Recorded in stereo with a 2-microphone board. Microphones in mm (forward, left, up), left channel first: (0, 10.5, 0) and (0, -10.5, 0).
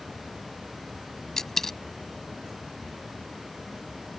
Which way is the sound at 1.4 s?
20° left (ahead or behind).